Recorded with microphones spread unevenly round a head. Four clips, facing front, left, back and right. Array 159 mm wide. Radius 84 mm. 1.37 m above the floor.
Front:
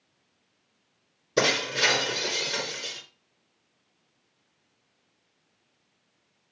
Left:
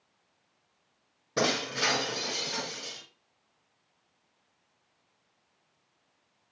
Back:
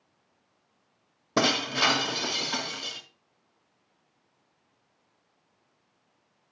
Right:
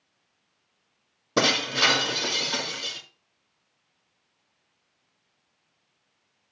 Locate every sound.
1.4 s breaking glass: 150° right, 3 m